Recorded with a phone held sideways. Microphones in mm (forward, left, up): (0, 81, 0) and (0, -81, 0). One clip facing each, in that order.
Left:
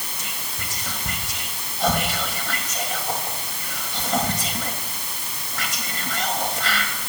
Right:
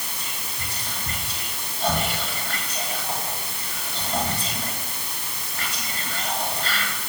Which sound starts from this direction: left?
Whispering, at 0.2 s.